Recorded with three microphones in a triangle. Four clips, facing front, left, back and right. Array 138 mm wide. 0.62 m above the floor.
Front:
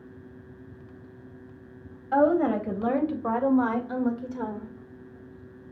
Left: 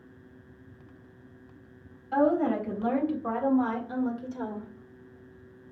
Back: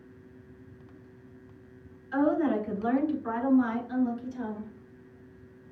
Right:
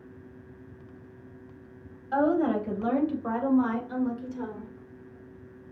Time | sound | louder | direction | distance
2.1 | a woman speaking | even, front 4 dB | 15° right | 3.5 m